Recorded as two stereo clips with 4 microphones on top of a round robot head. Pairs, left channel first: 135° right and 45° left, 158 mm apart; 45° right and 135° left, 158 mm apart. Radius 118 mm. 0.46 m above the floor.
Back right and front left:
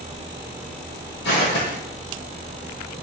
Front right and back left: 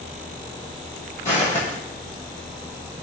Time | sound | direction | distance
1.2 | footsteps | 120° right | 0.8 m